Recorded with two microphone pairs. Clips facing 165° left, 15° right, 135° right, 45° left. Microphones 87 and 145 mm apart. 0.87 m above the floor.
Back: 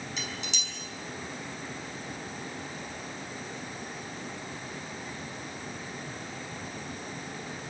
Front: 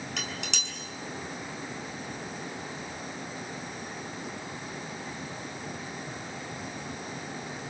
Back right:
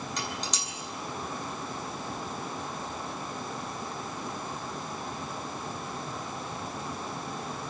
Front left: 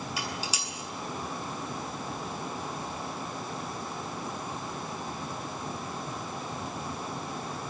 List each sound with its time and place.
0.2 s dishes clattering: 40° right, 7 m